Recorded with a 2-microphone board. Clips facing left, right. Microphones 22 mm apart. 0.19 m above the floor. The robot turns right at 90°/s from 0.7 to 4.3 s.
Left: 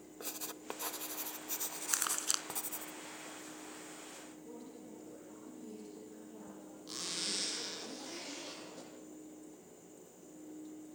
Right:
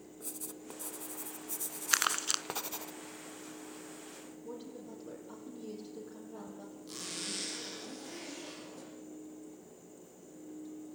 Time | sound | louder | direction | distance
0.2 | writing | left 1 dB | 40° left (ahead or behind) | 0.5 m
1.9 | crumpling | right 6 dB | 45° right (ahead or behind) | 0.6 m
4.4 | a woman speaking | right 8 dB | 40° right (ahead or behind) | 5 m
6.9 | a zipper | left 2 dB | 20° left (ahead or behind) | 5.5 m